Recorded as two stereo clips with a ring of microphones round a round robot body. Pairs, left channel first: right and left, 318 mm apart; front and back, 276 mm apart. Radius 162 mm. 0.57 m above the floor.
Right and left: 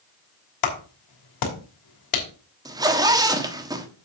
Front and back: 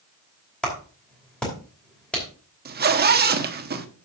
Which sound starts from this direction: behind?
A zipper, at 2.6 s.